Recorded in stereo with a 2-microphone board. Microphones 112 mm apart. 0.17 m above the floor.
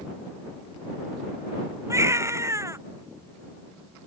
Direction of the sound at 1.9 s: 25° right (ahead or behind).